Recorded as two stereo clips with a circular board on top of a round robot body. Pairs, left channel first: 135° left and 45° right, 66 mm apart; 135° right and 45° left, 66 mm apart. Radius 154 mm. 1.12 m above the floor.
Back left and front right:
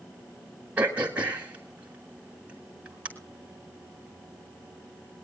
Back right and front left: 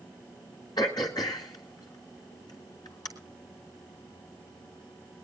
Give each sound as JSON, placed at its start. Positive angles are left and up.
{"t": 0.8, "sound": "throat clearing", "azimuth_deg": -115, "distance_m": 1.3}